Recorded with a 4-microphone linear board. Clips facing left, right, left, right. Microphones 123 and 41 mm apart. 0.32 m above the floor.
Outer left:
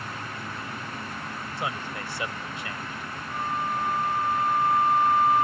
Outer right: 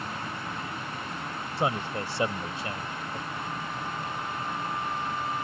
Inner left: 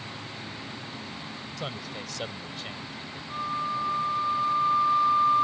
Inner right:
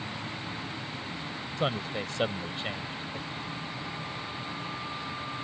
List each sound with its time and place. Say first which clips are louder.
1.6 s a man speaking: outer right 5 dB, inner right 7 dB; 35° right (ahead or behind)
3.3 s a flute: outer left 6 dB, inner left 8 dB; 70° left (ahead or behind)